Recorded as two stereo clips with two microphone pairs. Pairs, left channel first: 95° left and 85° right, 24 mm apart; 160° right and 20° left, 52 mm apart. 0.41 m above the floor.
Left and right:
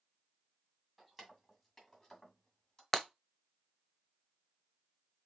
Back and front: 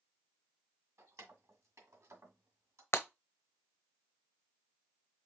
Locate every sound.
1.0 s keys jangling: 5° left, 1.9 m; by 2.8 s 35° left, 2.0 m
2.9 s breaking glass: 175° left, 1.0 m